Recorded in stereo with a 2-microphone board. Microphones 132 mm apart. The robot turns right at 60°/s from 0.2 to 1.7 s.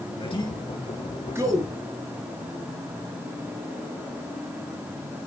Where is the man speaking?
45° left (ahead or behind), 4 m; by 1.7 s 40° right (ahead or behind), 4 m.